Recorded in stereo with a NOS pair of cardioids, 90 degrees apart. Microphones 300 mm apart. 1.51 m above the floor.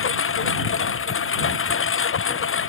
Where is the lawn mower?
45° left.